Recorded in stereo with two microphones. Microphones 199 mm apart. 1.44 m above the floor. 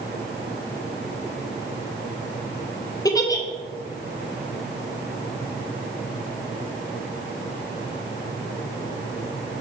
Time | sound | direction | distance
3.0 | a giggle | 20° left (ahead or behind) | 0.5 m